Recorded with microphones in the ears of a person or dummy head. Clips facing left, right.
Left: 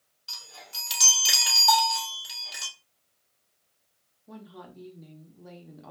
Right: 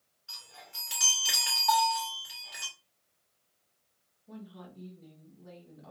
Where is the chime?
50° left (ahead or behind), 1.9 m.